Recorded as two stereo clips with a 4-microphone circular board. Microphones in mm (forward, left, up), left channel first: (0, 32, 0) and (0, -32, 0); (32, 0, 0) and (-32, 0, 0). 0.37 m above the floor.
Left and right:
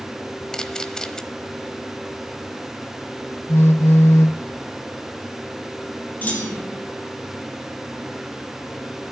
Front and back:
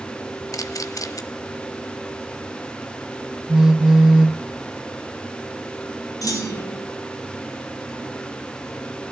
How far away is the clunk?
About 4 m.